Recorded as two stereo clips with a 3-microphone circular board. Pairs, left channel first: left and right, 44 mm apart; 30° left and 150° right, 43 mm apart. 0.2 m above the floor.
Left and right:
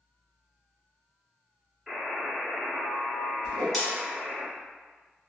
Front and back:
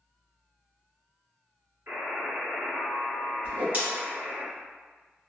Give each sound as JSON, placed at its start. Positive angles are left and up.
{"t": 1.9, "sound": "a buzzer", "azimuth_deg": -170, "distance_m": 1.9}
{"t": 3.4, "sound": "a whoosh", "azimuth_deg": 180, "distance_m": 1.4}